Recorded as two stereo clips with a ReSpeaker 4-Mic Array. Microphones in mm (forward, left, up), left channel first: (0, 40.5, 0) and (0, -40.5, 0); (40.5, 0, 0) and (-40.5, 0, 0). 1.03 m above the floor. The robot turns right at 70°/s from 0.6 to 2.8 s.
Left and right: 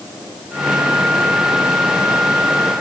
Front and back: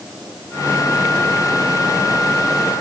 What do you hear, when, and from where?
Only background noise.